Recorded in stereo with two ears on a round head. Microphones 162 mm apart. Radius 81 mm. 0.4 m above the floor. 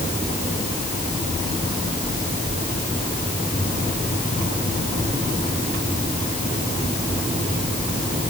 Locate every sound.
Only background noise.